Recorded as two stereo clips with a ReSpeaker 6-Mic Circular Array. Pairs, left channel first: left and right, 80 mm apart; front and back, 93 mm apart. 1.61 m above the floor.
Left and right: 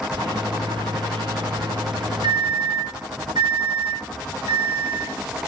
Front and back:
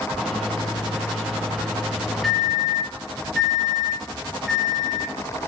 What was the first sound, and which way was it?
A microwave, 90° right.